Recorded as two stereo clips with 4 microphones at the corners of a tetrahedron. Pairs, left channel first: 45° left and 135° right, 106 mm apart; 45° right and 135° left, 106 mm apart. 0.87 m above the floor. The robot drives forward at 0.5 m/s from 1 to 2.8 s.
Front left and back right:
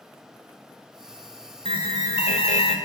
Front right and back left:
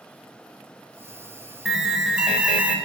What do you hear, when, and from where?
1.6 s an alarm: 45° left, 2 m; by 2.8 s 60° left, 1.9 m